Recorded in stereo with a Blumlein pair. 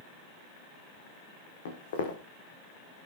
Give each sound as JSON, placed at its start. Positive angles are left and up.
{"t": 1.6, "sound": "footsteps", "azimuth_deg": 60, "distance_m": 4.5}